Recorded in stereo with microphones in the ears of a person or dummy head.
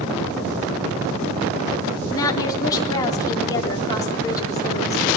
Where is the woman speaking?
20° left (ahead or behind), 3.5 m.